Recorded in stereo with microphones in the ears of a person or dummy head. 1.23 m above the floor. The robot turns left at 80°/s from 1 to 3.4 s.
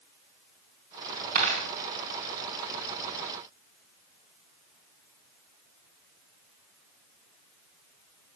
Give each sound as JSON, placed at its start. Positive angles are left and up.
{"t": 1.4, "sound": "a dropped coin", "side_deg": -50, "distance_m": 2.5}